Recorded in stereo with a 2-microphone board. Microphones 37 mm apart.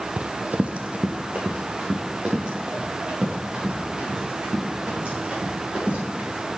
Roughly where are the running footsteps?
Right.